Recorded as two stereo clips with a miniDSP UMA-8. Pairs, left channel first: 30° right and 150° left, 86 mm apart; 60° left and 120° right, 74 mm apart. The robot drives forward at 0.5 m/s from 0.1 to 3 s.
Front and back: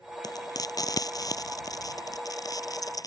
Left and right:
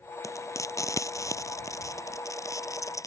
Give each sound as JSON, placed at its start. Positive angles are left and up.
{"t": 0.2, "sound": "frying", "azimuth_deg": 15}